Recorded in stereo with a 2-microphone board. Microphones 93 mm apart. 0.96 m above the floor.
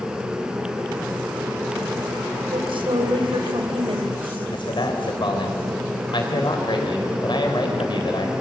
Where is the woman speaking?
70° right (ahead or behind), 4 m.